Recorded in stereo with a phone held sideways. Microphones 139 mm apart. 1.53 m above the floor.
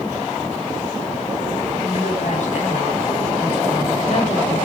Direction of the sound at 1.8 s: 60° left (ahead or behind).